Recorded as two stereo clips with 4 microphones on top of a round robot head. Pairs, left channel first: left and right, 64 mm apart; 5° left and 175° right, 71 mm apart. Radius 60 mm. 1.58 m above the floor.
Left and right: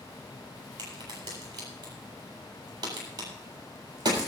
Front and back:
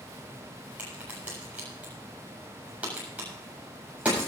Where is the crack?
100° right, 7.5 m.